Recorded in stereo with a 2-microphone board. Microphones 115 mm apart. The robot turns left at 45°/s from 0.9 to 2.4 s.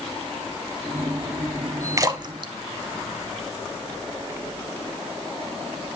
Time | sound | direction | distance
2.0 | a splash | 30° right (ahead or behind) | 0.6 m